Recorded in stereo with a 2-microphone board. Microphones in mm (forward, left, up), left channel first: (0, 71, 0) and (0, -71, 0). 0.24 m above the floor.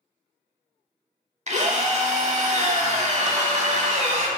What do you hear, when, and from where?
1.5 s a drill: 50° right (ahead or behind), 0.6 m